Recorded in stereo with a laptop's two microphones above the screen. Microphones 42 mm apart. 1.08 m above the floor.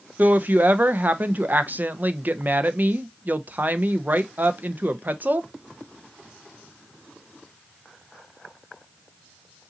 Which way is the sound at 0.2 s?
50° right (ahead or behind).